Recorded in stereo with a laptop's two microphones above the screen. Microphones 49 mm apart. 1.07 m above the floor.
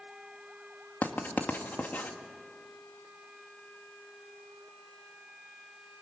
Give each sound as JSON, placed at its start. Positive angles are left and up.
{"t": 1.0, "sound": "writing", "side_deg": 35, "distance_m": 1.8}